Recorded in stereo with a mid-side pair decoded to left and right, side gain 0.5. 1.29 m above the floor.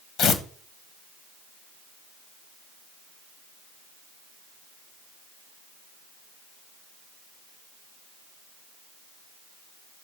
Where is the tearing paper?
65° left, 1.0 m.